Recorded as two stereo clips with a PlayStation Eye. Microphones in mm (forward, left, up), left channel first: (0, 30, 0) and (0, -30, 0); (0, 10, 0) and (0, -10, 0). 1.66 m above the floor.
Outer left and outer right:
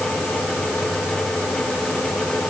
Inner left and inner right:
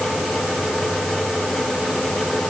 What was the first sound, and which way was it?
Only background noise.